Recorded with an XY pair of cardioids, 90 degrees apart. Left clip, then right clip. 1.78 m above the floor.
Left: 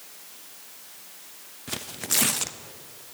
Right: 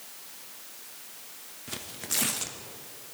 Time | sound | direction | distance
1.7 | tearing paper | 45° left | 0.6 m